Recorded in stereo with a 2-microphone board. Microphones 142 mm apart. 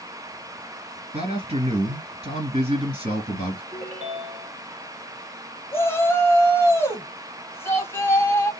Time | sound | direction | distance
1.1 | a man speaking | 40° right (ahead or behind) | 2 m
3.7 | a ringtone | 55° right (ahead or behind) | 2.5 m
5.7 | a shout | 15° left (ahead or behind) | 1.2 m